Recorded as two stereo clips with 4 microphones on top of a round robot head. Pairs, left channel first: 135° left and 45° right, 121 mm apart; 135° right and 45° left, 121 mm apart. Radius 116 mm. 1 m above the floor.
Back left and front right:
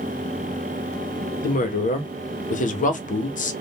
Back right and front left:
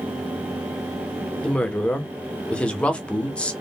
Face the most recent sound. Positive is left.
turn(degrees=140)